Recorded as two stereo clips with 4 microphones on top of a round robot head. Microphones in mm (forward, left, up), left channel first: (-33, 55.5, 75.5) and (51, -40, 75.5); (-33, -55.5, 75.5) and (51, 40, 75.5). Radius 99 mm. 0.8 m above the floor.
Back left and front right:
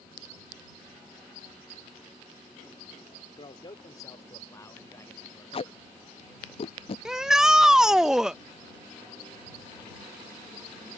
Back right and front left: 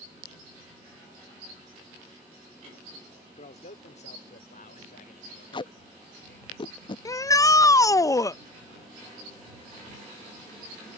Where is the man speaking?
175° right; by 6.5 s 150° right.